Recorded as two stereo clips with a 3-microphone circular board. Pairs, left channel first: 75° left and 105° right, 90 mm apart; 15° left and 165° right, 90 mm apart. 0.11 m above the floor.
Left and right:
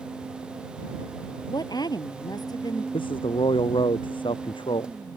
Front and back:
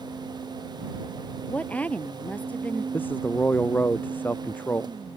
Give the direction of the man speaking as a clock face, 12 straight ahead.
9 o'clock.